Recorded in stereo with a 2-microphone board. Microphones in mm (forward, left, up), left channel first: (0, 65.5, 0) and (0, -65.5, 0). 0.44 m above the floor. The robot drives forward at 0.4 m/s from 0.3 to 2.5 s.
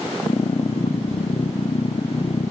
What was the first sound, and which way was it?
Only background noise.